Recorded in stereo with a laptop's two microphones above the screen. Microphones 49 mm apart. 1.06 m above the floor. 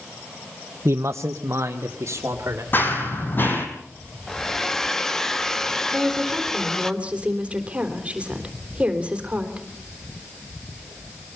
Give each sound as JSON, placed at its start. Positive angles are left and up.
{"t": 0.8, "sound": "a man speaking", "side_deg": -70, "distance_m": 0.5}
{"t": 2.7, "sound": "running footsteps", "side_deg": 45, "distance_m": 2.0}
{"t": 4.3, "sound": "a hair dryer", "side_deg": 10, "distance_m": 1.0}
{"t": 5.9, "sound": "a woman speaking", "side_deg": -25, "distance_m": 3.5}